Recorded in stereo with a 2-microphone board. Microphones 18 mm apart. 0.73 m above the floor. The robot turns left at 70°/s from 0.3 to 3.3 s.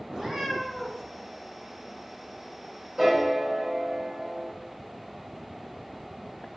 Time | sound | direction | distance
0.1 | a cat meowing | 145° right | 1.2 m
3.0 | a piano | 20° right (ahead or behind) | 1.7 m